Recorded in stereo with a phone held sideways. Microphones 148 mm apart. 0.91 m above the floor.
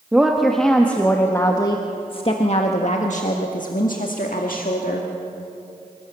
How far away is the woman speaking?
About 1.5 m.